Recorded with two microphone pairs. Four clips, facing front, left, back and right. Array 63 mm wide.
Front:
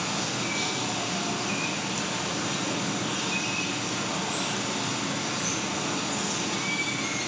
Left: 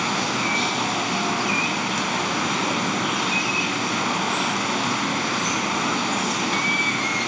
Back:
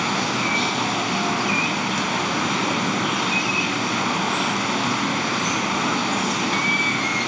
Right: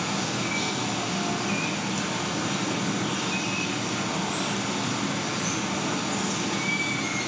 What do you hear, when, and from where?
0.0 s running water: 145° left, 0.8 m